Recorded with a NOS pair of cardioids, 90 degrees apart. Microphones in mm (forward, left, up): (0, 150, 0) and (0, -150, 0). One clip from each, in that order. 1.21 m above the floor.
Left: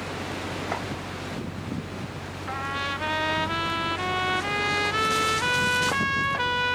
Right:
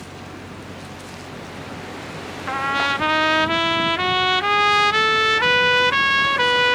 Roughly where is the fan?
Ahead left.